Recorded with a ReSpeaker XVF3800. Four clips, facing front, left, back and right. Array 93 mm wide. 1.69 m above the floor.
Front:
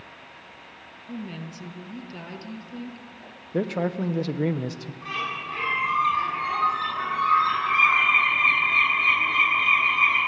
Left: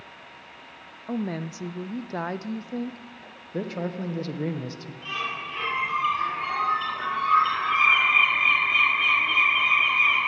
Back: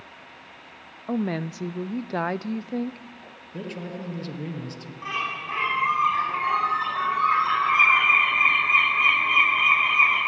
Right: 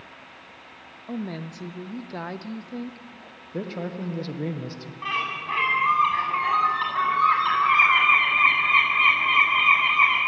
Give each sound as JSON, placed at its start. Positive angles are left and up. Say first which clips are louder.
{"t": 1.1, "sound": "a woman speaking", "louder": "left 3 dB, back 9 dB", "azimuth_deg": 165, "distance_m": 0.7}
{"t": 3.5, "sound": "a man speaking", "louder": "left 1 dB, front 9 dB", "azimuth_deg": 5, "distance_m": 1.6}
{"t": 5.0, "sound": "a bird", "louder": "right 4 dB, back 1 dB", "azimuth_deg": -110, "distance_m": 9.5}